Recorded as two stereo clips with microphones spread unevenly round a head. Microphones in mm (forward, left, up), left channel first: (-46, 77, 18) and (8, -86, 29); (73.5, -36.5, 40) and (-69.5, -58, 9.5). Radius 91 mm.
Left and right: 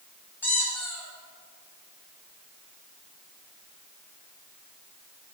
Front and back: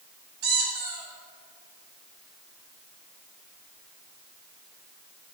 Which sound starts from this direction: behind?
A squeak, at 0.4 s.